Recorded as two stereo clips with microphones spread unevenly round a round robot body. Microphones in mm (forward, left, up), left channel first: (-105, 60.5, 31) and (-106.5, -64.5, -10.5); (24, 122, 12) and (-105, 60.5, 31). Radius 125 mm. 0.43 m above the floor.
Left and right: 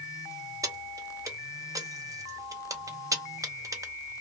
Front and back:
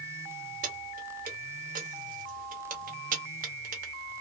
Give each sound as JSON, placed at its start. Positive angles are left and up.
{"t": 0.6, "sound": "keys jangling", "azimuth_deg": -130, "distance_m": 0.7}